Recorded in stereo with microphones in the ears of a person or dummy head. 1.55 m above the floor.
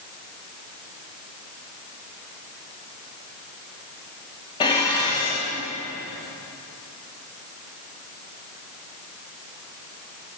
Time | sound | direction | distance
4.6 | dishes clattering | 25° left (ahead or behind) | 2 m